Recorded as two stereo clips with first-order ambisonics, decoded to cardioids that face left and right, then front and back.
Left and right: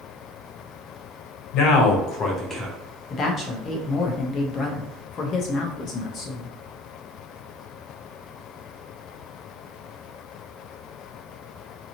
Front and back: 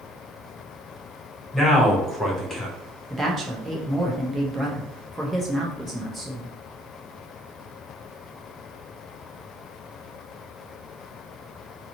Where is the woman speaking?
95° left, 0.7 m.